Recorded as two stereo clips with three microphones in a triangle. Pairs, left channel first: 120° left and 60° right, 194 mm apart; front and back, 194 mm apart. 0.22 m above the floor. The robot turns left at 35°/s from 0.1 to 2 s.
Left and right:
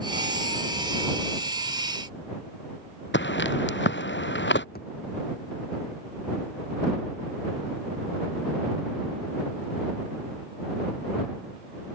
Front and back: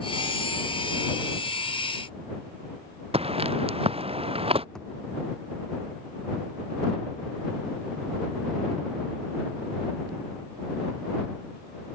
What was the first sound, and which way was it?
Footsteps, 120° left.